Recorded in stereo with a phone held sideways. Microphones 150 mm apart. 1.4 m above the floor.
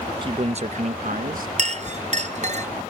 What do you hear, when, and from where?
0.2 s a man speaking: 30° right (ahead or behind); by 1.5 s 70° right (ahead or behind)
1.6 s a clink: 50° right (ahead or behind)